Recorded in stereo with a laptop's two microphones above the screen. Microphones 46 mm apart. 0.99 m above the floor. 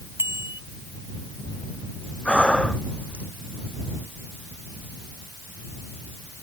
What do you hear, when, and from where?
0.2 s a bicycle bell: 65° right (ahead or behind)
2.2 s breathing: 20° left (ahead or behind)